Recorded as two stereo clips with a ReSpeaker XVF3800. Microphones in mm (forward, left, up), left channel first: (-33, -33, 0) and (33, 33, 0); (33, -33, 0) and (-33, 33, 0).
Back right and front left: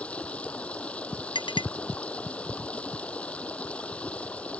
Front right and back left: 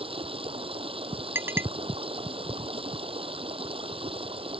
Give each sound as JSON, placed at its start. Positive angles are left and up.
{"t": 0.0, "sound": "running water", "azimuth_deg": 150}
{"t": 1.4, "sound": "a clink", "azimuth_deg": -160}